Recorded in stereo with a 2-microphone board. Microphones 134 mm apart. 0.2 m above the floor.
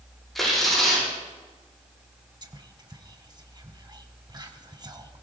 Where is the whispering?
35° right (ahead or behind), 1.4 m.